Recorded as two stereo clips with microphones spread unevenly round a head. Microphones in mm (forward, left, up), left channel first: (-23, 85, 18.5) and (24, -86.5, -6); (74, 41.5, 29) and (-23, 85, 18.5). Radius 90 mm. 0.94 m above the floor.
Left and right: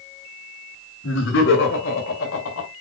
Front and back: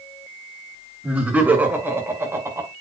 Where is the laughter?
80° left, 6 m; by 2.7 s 95° left, 4.5 m.